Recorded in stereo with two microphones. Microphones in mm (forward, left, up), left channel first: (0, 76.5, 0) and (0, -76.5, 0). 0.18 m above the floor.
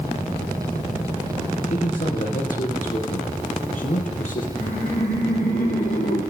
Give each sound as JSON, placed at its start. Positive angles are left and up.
{"t": 1.7, "sound": "a man speaking", "side_deg": 60, "distance_m": 4.0}
{"t": 4.5, "sound": "laughter", "side_deg": 75, "distance_m": 7.5}